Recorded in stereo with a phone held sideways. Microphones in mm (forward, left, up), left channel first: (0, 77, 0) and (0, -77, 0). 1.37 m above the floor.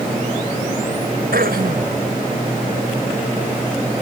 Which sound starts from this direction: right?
Throat clearing, at 1.3 s.